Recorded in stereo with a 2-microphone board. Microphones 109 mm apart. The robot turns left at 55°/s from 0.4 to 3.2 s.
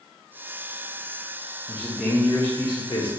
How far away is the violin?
I don't hear a violin.